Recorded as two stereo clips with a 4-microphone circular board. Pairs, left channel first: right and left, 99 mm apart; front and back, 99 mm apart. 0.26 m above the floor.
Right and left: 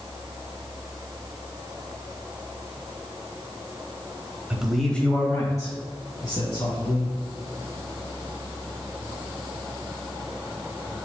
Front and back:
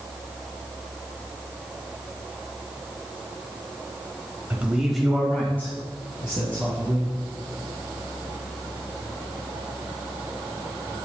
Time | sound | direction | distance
4.5 | a man speaking | 145° left | 1.1 m